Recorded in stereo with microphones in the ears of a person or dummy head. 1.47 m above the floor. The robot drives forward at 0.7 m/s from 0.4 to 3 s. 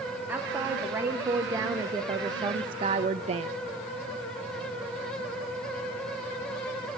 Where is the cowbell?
I don't hear a cowbell.